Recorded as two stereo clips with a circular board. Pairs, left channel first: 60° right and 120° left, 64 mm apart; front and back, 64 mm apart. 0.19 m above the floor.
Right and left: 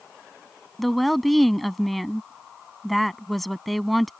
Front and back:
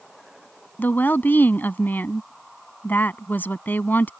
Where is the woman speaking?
30° left.